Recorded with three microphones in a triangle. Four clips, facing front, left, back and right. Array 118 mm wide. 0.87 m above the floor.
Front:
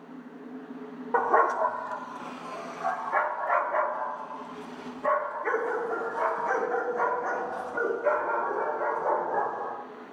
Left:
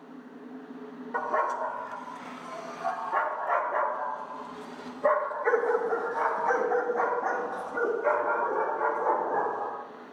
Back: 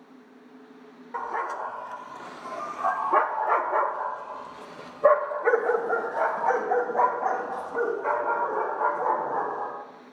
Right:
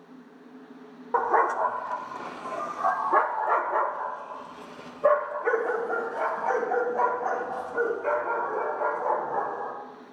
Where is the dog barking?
55° right, 0.9 m; by 9.7 s 175° right, 4 m.